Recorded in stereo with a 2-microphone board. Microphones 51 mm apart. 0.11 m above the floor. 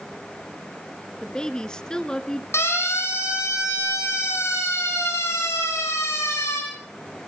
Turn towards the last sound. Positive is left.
turn(degrees=65)  # may be behind; listen again after turning